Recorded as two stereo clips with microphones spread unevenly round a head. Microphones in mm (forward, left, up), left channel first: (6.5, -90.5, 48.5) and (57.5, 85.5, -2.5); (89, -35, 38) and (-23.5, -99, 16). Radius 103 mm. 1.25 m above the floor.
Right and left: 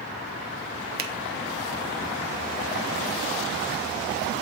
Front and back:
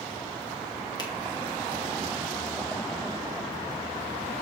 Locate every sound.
1.0 s a finger snap: 100° left, 0.7 m